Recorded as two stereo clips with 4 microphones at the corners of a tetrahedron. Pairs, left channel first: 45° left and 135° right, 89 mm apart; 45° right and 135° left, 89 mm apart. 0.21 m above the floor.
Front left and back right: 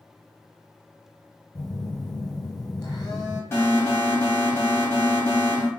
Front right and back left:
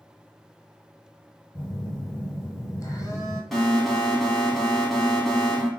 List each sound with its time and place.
1.6 s a phone buzzing: 5° left, 1.0 m
3.5 s an alarm: 40° left, 1.1 m